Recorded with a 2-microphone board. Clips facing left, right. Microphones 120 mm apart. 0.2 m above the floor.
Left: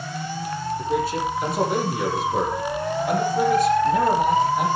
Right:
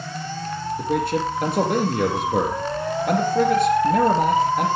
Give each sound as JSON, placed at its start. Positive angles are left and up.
{"t": 0.8, "sound": "a man speaking", "side_deg": -60, "distance_m": 6.0}